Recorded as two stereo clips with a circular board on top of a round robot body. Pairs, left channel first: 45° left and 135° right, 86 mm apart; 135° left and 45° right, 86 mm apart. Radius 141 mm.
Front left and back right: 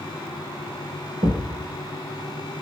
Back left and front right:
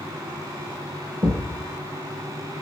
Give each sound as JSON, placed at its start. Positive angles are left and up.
{"t": 1.2, "sound": "a thud", "azimuth_deg": -95, "distance_m": 2.5}